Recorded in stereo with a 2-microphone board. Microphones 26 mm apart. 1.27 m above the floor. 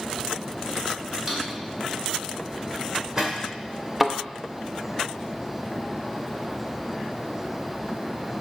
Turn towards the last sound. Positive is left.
turn(degrees=-10)  # may be behind; listen again after turning